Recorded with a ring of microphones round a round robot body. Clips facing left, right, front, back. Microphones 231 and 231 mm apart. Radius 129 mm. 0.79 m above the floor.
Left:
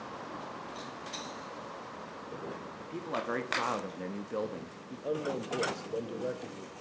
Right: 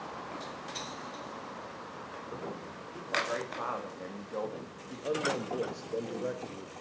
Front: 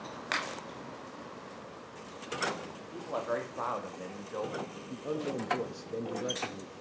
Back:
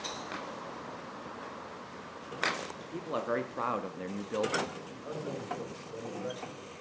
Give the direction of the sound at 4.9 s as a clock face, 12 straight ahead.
12 o'clock.